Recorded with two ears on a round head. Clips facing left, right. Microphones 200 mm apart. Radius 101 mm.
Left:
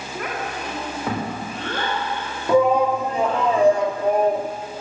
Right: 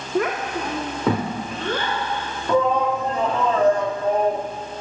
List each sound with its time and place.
0.1 s a child speaking: 55° right (ahead or behind), 2 m; by 3.4 s 90° right, 6.5 m
2.5 s a shout: 10° left (ahead or behind), 1.9 m